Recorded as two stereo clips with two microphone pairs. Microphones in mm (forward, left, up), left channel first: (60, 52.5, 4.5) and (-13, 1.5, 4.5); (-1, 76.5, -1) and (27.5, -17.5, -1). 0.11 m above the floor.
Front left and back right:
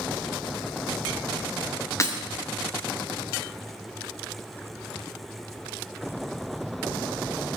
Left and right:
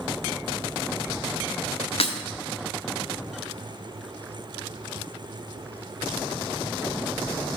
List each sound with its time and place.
2.0 s breaking glass: 90° left, 1.2 m